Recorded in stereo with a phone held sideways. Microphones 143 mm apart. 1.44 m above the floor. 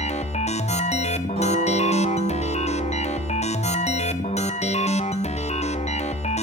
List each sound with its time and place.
0.0 s a machine running: 50° left (ahead or behind), 0.8 m
1.4 s a guitar: 45° right (ahead or behind), 9 m